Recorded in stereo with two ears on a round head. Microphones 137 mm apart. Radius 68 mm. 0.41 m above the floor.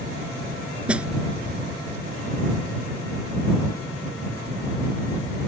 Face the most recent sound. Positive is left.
turn(degrees=-5)  # may be behind; listen again after turning